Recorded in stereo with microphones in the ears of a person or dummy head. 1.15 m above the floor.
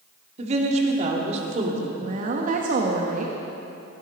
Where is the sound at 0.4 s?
45° right (ahead or behind), 2.5 m.